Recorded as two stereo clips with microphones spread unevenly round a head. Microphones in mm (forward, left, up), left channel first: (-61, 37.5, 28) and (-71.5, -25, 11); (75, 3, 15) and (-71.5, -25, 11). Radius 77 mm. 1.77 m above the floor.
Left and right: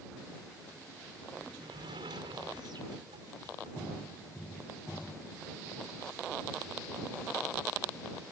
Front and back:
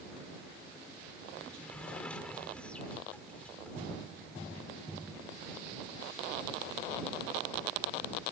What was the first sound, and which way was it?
A sliding door, 70° right.